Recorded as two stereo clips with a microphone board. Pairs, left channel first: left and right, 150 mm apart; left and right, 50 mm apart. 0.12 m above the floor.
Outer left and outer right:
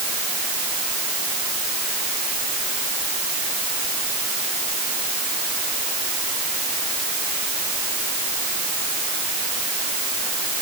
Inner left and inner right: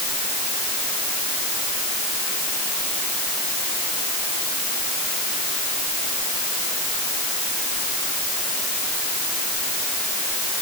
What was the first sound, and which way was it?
Only background noise.